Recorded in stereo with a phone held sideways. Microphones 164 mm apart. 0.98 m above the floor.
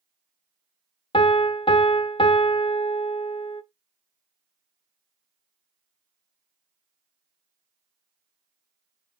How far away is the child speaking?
No child speaking in this recording.